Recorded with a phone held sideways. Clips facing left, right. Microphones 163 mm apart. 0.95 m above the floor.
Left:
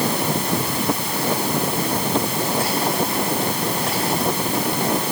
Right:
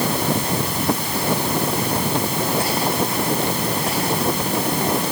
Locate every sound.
Only background noise.